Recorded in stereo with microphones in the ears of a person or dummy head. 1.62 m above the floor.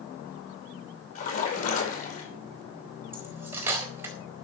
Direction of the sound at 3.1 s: 10° right (ahead or behind).